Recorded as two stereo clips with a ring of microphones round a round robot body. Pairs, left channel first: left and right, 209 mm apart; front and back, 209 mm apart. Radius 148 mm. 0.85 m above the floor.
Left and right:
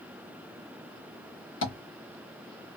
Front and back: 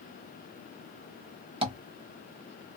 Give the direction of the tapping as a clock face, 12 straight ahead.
8 o'clock.